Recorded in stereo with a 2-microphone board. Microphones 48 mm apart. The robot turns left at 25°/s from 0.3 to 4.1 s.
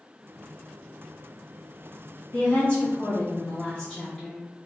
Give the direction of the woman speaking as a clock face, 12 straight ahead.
9 o'clock.